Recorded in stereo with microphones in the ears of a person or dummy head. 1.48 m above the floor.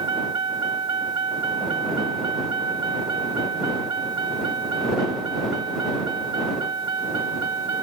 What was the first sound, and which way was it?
A vehicle, 25° right (ahead or behind).